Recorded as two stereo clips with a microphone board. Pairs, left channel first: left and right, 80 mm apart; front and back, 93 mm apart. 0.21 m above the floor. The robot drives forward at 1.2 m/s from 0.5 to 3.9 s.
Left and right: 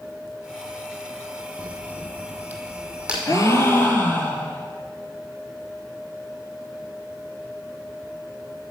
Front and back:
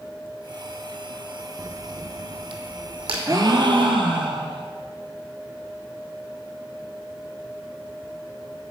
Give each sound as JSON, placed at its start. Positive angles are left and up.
{"t": 1.6, "sound": "a crack", "azimuth_deg": -110, "distance_m": 0.5}
{"t": 3.3, "sound": "a gasp", "azimuth_deg": 130, "distance_m": 0.8}